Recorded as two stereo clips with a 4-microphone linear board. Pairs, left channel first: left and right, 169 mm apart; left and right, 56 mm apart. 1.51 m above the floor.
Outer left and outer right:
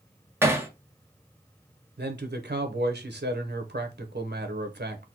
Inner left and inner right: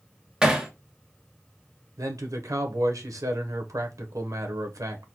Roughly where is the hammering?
Centre.